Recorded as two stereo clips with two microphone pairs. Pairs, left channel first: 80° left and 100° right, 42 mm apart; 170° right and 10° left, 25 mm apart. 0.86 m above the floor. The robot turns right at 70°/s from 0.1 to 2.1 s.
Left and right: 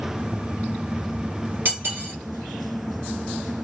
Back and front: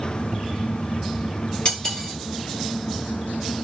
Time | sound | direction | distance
1.6 | cutlery clinking | 125° right | 1.3 m